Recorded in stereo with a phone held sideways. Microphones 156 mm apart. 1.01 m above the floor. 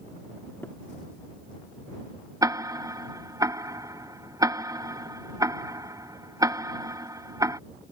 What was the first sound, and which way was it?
Tapping, 15° left (ahead or behind).